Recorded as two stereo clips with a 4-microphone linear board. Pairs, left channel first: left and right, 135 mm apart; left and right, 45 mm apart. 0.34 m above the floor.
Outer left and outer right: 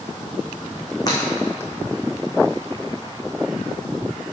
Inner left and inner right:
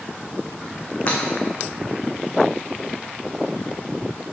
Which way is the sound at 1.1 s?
30° left (ahead or behind).